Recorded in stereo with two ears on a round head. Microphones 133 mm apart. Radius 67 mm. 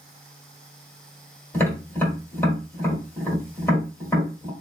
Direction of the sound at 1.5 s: 15° left (ahead or behind).